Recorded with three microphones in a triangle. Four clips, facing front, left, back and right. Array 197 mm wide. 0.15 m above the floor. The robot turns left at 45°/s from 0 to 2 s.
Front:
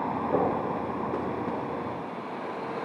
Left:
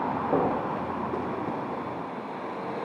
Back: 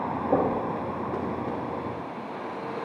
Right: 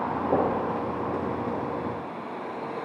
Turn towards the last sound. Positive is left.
turn(degrees=155)